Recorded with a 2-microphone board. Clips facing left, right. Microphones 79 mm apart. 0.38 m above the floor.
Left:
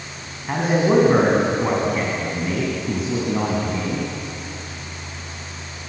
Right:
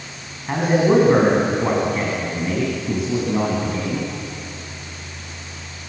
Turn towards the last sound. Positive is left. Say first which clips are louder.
# right 2 dB
turn(degrees=0)  # may be behind; listen again after turning